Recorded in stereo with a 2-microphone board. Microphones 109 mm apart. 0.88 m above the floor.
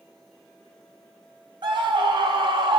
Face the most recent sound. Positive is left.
turn(degrees=-45)  # may be behind; listen again after turning